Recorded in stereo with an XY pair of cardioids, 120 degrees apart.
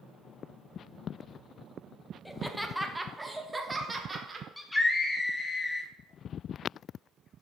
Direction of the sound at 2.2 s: 10° left.